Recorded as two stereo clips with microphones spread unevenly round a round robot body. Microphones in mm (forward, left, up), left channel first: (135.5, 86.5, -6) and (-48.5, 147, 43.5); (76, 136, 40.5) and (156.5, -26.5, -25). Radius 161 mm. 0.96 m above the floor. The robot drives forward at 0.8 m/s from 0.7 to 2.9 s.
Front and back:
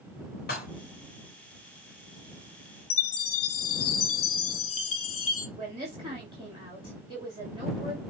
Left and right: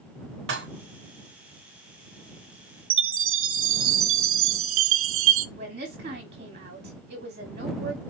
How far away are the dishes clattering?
About 1.5 m.